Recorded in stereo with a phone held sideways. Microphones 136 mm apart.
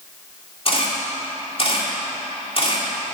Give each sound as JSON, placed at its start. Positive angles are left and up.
{"t": 0.7, "sound": "a camera shutter", "side_deg": 45, "distance_m": 1.9}